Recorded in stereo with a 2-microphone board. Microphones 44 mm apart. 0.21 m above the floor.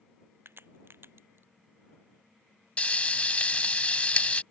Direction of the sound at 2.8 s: 30° left (ahead or behind).